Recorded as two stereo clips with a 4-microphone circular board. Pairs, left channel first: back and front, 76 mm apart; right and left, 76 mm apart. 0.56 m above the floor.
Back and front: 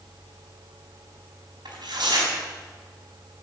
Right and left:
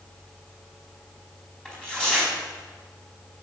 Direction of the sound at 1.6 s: 10° right.